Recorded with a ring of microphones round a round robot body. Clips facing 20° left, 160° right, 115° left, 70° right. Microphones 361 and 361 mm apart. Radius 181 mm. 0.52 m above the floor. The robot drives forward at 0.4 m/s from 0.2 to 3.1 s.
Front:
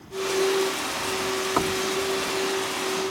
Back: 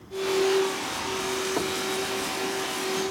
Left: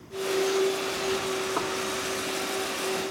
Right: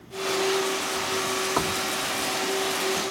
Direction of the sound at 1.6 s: 30° right.